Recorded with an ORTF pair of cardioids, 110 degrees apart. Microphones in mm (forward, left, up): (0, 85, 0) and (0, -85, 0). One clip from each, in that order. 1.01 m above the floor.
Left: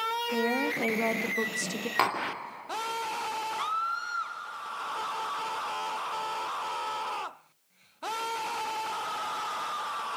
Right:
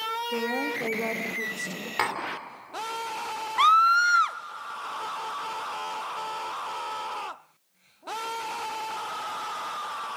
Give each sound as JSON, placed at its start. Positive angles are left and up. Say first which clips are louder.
{"t": 0.3, "sound": "a woman speaking", "louder": "left 1 dB", "azimuth_deg": 20, "distance_m": 1.5}
{"t": 2.0, "sound": "tapping", "louder": "left 1 dB", "azimuth_deg": 15, "distance_m": 2.5}
{"t": 3.6, "sound": "a scream", "louder": "right 16 dB", "azimuth_deg": -65, "distance_m": 0.6}